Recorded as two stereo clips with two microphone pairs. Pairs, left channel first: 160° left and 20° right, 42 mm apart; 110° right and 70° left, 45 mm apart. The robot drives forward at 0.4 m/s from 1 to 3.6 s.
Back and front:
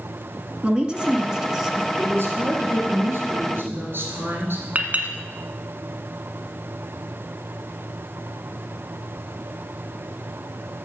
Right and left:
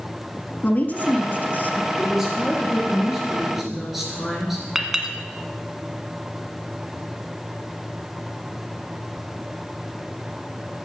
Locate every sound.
0.6 s a woman speaking: 80° right, 1.4 m; by 1.9 s 100° right, 1.4 m
2.0 s a woman speaking: 15° right, 3.5 m
4.8 s a clink: 10° right, 1.3 m